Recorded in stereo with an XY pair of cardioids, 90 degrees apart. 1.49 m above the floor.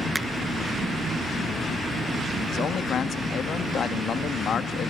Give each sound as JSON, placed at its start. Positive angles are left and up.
{"t": 0.1, "sound": "a finger snap", "azimuth_deg": -15, "distance_m": 1.5}
{"t": 2.5, "sound": "a man speaking", "azimuth_deg": 60, "distance_m": 2.5}